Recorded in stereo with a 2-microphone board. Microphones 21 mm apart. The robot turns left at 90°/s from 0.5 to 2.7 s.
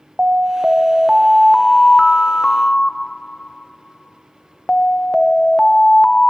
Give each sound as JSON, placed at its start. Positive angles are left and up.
{"t": 0.2, "sound": "an alarm", "azimuth_deg": -105, "distance_m": 0.6}